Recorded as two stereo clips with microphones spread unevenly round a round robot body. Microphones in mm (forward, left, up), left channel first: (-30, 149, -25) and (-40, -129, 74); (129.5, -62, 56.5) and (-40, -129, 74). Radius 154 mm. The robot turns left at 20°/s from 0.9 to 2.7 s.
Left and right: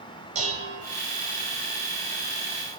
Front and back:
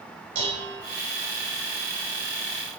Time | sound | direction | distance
0.3 | dishes clattering | 165° right | 1.8 m